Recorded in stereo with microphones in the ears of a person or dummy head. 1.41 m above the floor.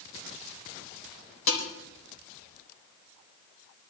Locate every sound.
1.5 s dishes clattering: 70° left (ahead or behind), 4 m